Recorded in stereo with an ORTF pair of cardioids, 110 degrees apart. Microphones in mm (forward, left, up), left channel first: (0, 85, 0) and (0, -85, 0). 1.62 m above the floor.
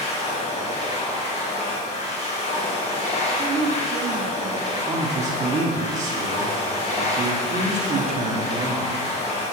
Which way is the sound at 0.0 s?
40° left.